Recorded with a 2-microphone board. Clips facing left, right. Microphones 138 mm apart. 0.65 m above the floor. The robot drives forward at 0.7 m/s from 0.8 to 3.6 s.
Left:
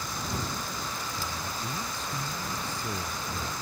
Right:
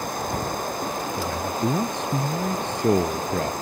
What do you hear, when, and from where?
0.0 s running water: 55° right (ahead or behind)
1.2 s a man speaking: 85° right